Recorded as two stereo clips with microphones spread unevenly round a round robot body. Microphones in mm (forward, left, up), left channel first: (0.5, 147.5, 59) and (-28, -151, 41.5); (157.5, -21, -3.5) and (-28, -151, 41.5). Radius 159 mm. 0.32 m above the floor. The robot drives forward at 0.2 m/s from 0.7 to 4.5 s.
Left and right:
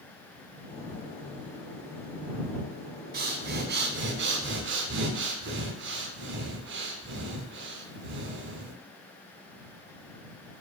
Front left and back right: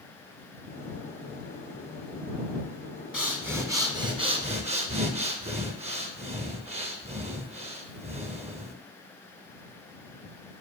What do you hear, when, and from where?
3.1 s breathing: 50° right, 0.7 m; by 8.8 s 80° right, 0.6 m